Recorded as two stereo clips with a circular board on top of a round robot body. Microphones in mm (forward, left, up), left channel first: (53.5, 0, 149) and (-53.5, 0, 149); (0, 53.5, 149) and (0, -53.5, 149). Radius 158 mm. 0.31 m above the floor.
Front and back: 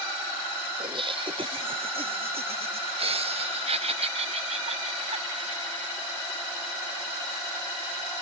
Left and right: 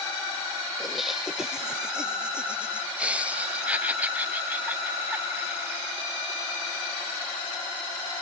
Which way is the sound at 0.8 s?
Straight behind.